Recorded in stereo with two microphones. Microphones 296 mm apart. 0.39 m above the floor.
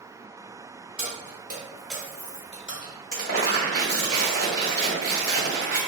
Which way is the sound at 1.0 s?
50° right (ahead or behind).